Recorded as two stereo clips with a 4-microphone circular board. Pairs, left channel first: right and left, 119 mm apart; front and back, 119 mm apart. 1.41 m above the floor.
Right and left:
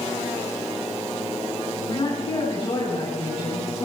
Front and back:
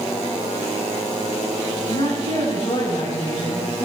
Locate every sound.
1.9 s a woman speaking: 45° right, 8.5 m